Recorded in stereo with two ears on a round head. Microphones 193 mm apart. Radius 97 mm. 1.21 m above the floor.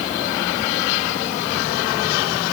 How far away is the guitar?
No guitar in this recording.